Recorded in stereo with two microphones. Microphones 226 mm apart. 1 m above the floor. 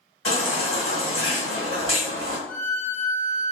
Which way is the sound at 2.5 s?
45° left (ahead or behind).